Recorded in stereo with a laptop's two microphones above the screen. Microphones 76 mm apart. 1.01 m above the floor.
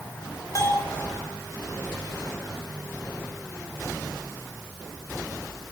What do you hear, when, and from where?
0.6 s a bell: 45° left (ahead or behind), 3.5 m